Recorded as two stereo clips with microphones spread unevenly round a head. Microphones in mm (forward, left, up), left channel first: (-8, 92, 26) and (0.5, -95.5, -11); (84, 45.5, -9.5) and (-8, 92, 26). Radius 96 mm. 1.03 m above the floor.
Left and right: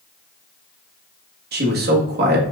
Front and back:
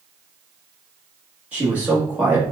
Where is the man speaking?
120° right, 1.4 m.